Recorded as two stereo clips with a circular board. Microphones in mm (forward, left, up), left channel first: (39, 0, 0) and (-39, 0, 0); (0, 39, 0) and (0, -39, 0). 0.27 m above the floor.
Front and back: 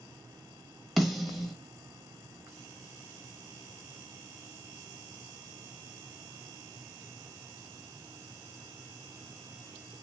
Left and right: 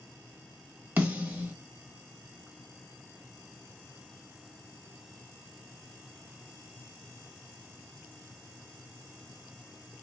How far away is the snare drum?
About 1.3 m.